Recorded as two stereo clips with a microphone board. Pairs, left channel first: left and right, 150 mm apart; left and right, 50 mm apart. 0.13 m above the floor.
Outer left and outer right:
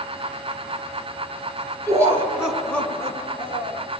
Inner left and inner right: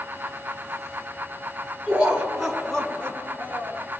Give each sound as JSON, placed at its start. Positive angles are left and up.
{"t": 1.9, "sound": "laughter", "side_deg": -25, "distance_m": 1.6}